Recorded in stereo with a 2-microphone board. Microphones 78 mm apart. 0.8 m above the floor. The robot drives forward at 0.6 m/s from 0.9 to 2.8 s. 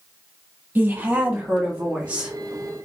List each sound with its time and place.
0.8 s a woman speaking: 25° right (ahead or behind), 0.9 m; by 2.3 s 15° right (ahead or behind), 1.6 m